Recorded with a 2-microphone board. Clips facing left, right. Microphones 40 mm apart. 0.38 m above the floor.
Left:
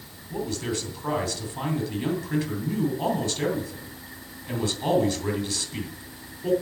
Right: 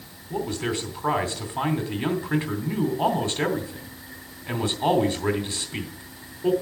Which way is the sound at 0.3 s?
25° right (ahead or behind).